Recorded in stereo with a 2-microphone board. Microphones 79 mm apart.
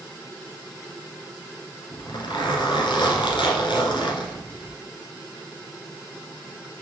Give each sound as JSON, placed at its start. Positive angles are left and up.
{"t": 1.9, "sound": "a zipper", "side_deg": 80, "distance_m": 1.6}